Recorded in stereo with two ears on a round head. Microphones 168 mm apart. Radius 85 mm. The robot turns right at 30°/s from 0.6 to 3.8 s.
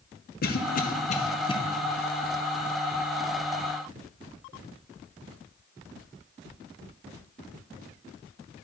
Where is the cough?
50° left (ahead or behind), 0.8 m; by 1.6 s 25° left (ahead or behind), 0.8 m.